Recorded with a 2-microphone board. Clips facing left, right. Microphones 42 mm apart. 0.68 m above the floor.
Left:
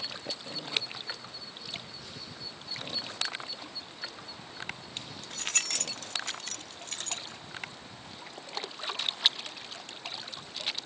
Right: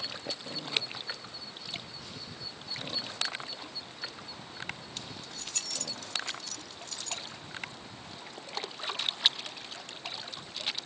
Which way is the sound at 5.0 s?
30° left (ahead or behind).